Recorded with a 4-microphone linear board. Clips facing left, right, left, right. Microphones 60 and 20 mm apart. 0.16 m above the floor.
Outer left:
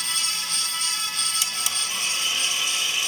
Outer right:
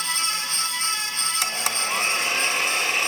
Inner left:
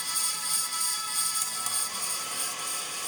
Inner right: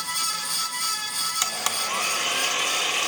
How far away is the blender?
About 1.3 m.